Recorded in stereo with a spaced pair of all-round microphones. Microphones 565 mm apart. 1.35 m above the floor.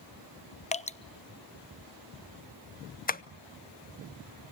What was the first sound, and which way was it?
Dripping, 15° left (ahead or behind).